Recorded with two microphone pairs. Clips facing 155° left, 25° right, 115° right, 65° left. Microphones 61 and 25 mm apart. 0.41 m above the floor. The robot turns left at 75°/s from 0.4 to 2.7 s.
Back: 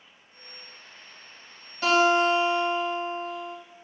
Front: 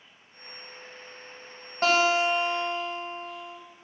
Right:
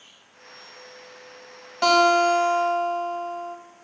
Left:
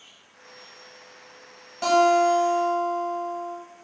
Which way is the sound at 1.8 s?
65° right.